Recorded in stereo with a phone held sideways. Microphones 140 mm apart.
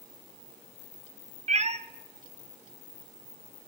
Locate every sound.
1.5 s a cat meowing: 50° right (ahead or behind), 0.6 m